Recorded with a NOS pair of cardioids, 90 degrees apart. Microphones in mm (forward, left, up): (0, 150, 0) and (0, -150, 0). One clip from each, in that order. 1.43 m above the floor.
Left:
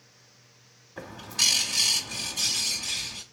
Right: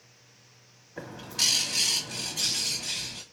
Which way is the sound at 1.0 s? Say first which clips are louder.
Left 2 dB; 5° left.